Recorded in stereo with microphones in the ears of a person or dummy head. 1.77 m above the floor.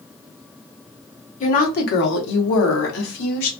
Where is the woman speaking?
40° left (ahead or behind), 0.9 m; by 3.5 s 80° left, 1.4 m.